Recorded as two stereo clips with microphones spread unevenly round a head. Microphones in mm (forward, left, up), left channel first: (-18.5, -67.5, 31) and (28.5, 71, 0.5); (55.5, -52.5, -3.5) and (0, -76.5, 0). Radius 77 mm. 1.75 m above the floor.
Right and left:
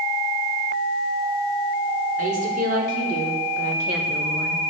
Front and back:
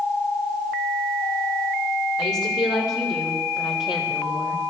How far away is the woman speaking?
About 6 m.